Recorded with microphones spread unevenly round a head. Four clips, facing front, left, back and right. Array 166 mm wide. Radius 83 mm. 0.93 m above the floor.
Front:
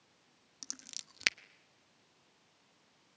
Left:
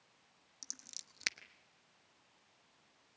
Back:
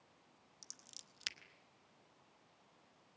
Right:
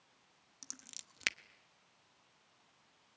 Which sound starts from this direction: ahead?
Scissors, at 0.6 s.